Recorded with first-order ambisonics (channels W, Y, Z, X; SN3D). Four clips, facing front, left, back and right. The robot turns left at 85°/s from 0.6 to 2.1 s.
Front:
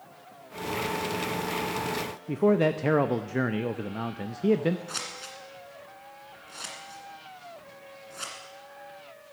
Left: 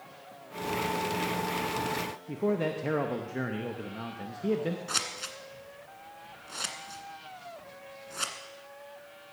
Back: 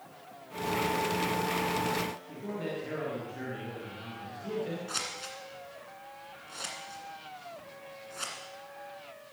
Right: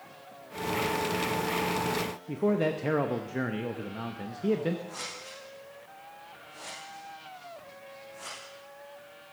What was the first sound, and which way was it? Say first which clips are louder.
A man speaking: right 2 dB, front 14 dB; 10° right.